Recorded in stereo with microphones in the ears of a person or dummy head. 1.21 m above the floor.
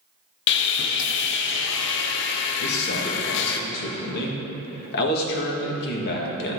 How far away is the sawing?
About 0.6 m.